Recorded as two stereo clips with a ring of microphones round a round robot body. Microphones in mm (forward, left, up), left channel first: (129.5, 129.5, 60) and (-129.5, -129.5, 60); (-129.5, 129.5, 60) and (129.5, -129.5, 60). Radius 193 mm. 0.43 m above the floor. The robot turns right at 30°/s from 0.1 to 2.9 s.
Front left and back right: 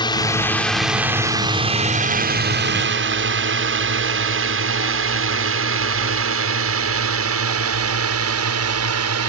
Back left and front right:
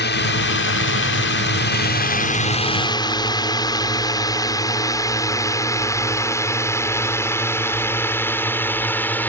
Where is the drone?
110° left; by 9.3 s 140° right.